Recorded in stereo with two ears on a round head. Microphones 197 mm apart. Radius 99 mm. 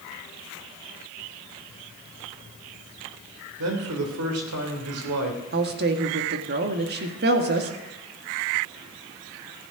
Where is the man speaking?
80° right, 3 m.